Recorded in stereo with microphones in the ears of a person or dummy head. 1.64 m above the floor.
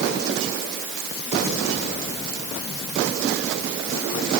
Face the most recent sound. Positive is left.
No sound to turn to.